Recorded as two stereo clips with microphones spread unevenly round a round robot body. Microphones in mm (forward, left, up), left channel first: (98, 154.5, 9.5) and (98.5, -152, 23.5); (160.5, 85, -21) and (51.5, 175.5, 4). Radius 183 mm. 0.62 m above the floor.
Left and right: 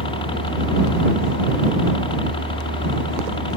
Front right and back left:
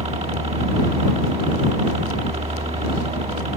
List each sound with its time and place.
0.0 s a helicopter: 155° left